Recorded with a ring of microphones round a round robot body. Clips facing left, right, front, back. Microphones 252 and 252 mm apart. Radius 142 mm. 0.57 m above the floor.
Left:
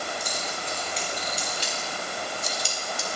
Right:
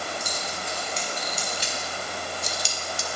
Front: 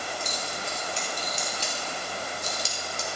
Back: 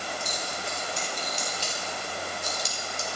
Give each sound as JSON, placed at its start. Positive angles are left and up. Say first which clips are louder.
{"t": 0.2, "sound": "keys jangling", "louder": "even, even", "azimuth_deg": -40, "distance_m": 6.0}